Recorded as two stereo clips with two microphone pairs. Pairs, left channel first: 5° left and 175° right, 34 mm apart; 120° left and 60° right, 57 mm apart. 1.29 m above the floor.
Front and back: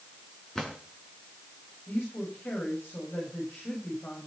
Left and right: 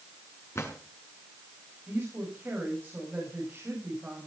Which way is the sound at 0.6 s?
80° left.